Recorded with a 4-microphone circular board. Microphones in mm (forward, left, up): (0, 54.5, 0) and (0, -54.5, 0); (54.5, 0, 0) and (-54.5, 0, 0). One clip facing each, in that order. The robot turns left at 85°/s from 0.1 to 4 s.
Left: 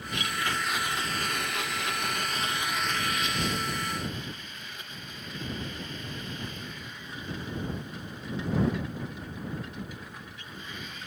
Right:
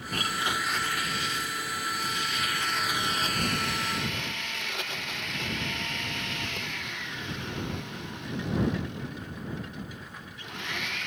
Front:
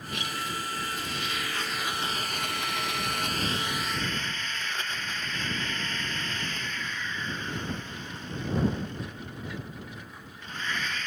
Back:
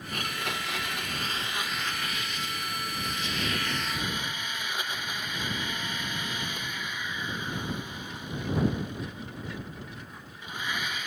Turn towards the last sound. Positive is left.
turn(degrees=-100)